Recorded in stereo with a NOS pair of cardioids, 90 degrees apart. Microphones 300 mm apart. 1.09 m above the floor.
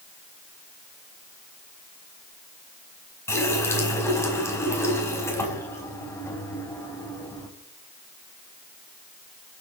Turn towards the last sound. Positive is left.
turn(degrees=10)